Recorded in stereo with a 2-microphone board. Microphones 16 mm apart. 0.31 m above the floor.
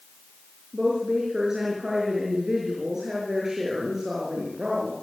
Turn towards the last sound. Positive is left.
turn(degrees=-30)  # may be behind; listen again after turning